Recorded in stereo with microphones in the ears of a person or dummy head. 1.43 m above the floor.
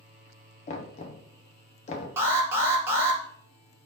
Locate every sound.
0.7 s knocking: 35° left (ahead or behind), 0.5 m
2.2 s an alarm: 20° right (ahead or behind), 0.8 m